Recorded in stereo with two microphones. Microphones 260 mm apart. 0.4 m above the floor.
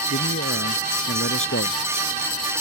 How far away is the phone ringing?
No phone ringing in this recording.